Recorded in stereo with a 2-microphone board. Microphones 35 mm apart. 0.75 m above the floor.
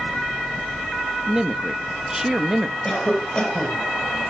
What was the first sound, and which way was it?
A man speaking, 15° right (ahead or behind).